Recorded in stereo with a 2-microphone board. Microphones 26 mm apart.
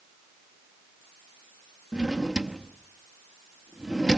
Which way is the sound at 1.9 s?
20° right (ahead or behind).